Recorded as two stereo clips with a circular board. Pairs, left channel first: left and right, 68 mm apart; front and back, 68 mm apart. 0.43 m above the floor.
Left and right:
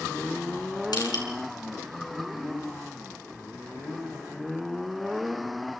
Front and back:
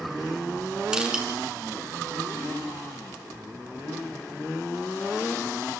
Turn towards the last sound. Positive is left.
turn(degrees=100)